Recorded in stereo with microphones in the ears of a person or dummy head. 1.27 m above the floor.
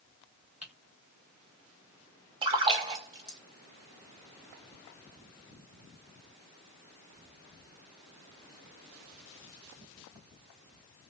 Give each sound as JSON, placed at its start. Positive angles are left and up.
{"t": 0.6, "sound": "typing on a keyboard", "side_deg": -5, "distance_m": 0.7}
{"t": 2.4, "sound": "a splash", "side_deg": -30, "distance_m": 0.9}